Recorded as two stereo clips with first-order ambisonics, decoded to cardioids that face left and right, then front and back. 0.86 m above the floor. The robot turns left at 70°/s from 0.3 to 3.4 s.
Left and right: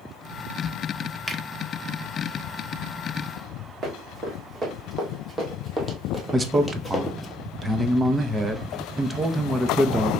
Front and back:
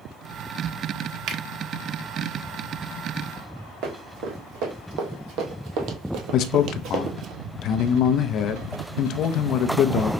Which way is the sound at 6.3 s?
10° right.